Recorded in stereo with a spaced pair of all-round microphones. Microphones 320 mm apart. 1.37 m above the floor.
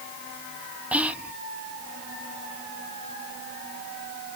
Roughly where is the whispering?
Centre.